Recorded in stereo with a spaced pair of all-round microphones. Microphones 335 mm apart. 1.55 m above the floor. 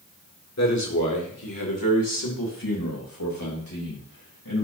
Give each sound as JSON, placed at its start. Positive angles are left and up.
{"t": 0.6, "sound": "a man speaking", "side_deg": 50, "distance_m": 1.9}